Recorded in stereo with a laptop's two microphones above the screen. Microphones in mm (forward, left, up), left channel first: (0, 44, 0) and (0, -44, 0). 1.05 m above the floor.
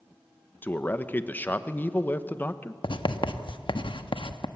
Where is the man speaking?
20° left (ahead or behind), 1.1 m.